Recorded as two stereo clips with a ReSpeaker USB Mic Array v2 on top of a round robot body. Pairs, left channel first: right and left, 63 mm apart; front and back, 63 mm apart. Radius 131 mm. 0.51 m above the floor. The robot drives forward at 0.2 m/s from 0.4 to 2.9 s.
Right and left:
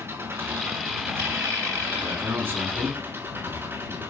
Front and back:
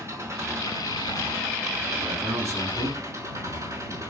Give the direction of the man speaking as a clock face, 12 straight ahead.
7 o'clock.